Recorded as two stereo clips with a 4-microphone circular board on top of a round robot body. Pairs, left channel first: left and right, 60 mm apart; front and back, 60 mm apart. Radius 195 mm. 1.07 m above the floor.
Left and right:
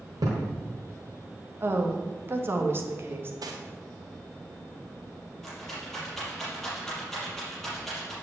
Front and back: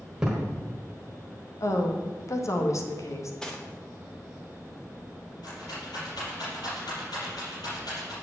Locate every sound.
0.2 s a thud: 100° right, 1.3 m
1.6 s a woman speaking: 40° right, 1.6 m
3.4 s cutlery clinking: 80° right, 1.6 m
5.4 s a rattle: 5° left, 5.5 m